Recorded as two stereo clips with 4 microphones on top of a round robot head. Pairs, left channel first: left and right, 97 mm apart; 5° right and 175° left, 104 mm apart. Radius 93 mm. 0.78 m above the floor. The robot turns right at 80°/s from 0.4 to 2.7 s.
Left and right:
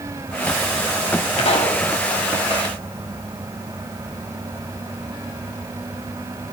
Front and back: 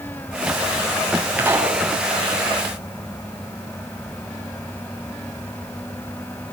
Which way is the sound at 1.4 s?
100° left.